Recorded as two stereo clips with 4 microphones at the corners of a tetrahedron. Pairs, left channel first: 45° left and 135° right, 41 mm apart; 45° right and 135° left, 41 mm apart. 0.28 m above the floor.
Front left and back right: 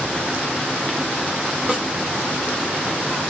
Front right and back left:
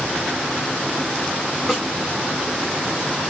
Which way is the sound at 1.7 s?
145° right.